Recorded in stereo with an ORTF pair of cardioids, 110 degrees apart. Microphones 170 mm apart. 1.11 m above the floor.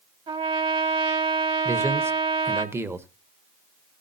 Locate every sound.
0.3 s a trumpet: 35° right, 1.7 m
1.6 s a man speaking: 15° right, 1.1 m